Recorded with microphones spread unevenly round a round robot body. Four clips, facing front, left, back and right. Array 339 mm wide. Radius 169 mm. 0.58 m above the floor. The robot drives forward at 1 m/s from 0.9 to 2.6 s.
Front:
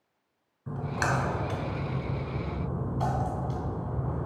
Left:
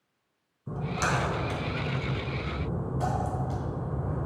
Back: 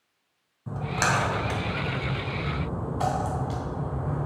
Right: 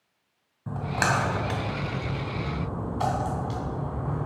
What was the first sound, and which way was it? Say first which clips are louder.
A splash: right 3 dB, back 3 dB; 95° right.